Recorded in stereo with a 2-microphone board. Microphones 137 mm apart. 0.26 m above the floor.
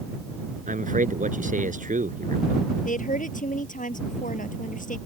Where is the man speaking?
70° right (ahead or behind).